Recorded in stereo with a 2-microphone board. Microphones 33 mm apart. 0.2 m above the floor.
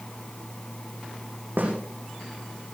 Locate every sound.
1.6 s a snare drum: 80° right, 6.5 m